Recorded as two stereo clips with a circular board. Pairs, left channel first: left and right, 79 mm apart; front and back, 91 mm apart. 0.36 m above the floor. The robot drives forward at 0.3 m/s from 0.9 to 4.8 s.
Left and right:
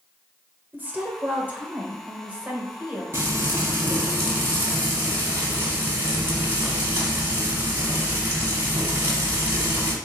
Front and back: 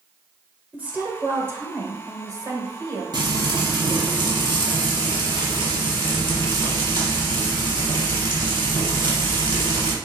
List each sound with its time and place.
0.7 s a woman speaking: 125° right, 0.9 m; by 3.0 s 160° right, 1.2 m
3.1 s frying: 145° right, 1.1 m; by 9.9 s 155° right, 1.6 m